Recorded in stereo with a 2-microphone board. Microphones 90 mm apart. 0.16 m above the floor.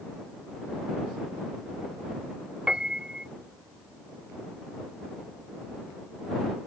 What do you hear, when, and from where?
2.7 s a piano: 10° right (ahead or behind)